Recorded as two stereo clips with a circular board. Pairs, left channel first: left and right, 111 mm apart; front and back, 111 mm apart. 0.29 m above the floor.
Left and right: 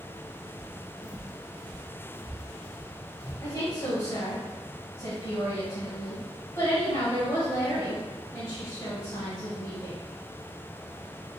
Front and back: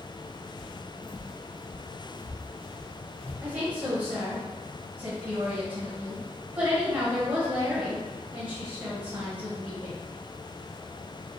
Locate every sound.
0.6 s footsteps: 90° right, 0.7 m; by 3.3 s 5° left, 2.5 m
3.4 s a woman speaking: 120° left, 1.3 m